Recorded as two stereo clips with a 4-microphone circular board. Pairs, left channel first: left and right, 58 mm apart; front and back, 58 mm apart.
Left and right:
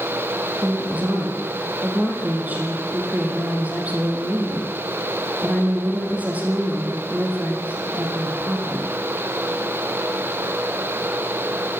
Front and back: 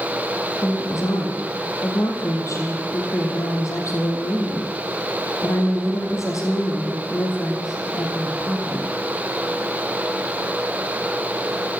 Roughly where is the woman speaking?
Ahead right.